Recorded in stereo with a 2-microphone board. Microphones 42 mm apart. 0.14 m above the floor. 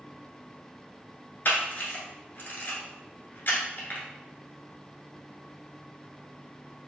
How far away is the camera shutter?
About 1.2 m.